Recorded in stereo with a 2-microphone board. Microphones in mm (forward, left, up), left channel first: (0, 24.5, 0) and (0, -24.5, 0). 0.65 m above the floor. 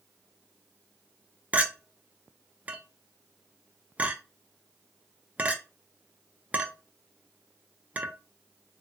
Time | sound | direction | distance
1.5 | a clink | 30° right (ahead or behind) | 0.5 m